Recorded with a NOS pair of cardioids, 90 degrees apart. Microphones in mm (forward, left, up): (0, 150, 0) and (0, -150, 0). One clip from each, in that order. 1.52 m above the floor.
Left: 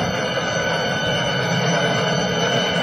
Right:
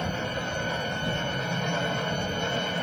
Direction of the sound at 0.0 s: 60° left.